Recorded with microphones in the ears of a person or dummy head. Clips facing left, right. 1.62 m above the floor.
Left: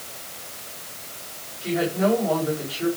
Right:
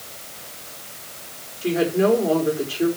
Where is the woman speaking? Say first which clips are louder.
Right 3 dB; 40° right (ahead or behind), 4.5 m.